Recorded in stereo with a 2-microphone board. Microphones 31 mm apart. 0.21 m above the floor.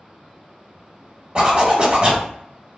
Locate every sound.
1.4 s a zipper: 30° right (ahead or behind), 1.1 m